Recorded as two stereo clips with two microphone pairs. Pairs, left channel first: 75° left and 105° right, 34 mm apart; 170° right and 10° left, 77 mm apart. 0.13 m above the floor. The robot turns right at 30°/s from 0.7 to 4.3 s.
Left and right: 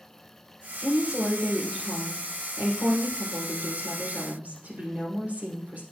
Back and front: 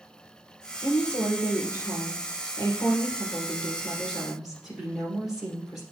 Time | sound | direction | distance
0.8 | a woman speaking | straight behind | 3.5 m